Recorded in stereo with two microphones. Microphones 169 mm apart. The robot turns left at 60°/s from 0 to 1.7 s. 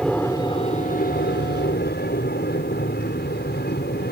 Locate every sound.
0.0 s an aircraft: straight behind; by 4.1 s 80° left